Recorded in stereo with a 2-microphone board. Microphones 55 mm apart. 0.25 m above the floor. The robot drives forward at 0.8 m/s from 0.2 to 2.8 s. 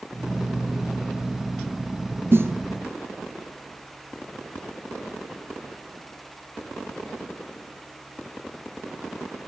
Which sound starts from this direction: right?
A snare drum, at 2.3 s.